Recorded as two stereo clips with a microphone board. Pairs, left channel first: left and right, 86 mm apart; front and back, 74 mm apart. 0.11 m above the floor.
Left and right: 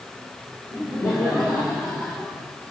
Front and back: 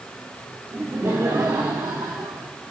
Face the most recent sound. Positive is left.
turn(degrees=160)